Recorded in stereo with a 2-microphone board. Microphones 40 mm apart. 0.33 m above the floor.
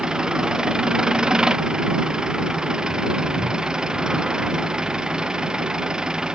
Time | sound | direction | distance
0.0 | an engine running | 20° right (ahead or behind) | ?